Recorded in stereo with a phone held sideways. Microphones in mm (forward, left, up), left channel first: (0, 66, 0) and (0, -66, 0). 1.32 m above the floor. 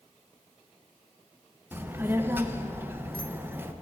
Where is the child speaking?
15° right (ahead or behind), 0.5 m.